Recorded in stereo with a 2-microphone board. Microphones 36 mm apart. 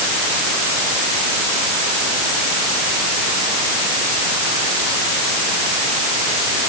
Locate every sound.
Only background noise.